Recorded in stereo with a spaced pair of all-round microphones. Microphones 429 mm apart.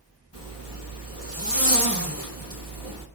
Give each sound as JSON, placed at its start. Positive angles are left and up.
{"t": 0.3, "sound": "a zipper", "side_deg": 55, "distance_m": 2.5}